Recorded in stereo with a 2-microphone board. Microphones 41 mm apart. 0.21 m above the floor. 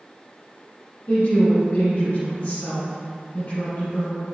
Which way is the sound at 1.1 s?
60° left (ahead or behind).